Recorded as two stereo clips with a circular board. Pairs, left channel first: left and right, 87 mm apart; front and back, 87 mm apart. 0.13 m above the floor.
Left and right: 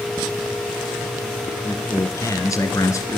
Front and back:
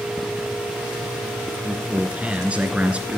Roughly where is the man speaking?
Left.